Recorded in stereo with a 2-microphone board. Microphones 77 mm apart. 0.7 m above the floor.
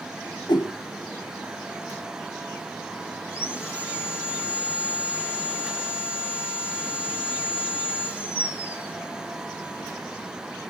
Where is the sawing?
15° right (ahead or behind), 1.5 m.